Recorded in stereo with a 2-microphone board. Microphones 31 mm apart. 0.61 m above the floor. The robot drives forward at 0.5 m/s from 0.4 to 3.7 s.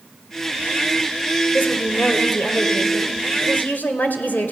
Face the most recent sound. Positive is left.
turn(degrees=65)  # may be behind; listen again after turning